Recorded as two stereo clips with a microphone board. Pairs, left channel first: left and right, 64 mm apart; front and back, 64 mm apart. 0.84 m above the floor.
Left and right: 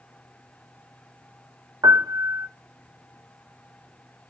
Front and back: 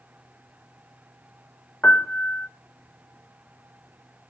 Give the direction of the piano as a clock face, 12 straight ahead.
2 o'clock.